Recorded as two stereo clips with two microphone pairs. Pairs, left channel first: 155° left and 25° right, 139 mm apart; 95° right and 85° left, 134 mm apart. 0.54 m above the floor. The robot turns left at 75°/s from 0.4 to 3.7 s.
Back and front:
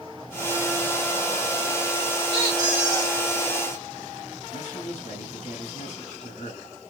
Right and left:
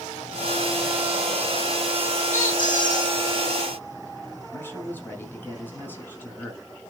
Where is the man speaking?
170° right, 5 m.